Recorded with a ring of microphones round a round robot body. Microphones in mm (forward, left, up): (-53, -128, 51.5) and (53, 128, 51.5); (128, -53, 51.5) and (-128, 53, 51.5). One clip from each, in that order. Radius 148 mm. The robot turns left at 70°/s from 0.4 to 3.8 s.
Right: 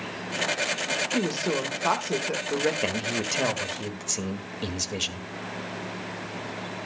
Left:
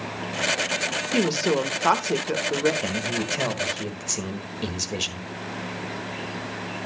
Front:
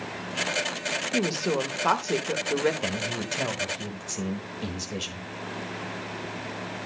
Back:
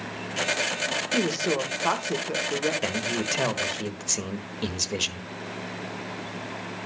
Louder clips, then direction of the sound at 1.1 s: Left 4 dB, back 1 dB; 80° left.